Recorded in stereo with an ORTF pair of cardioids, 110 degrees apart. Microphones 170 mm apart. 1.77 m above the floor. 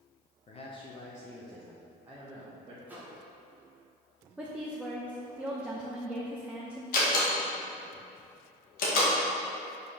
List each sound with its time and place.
0.5 s a man speaking: 40° left, 1.0 m; by 2.8 s 25° right, 1.6 m
2.9 s a microwave: 10° right, 1.5 m
4.4 s a woman speaking: 5° right, 0.7 m
6.9 s a door slam: 65° left, 1.8 m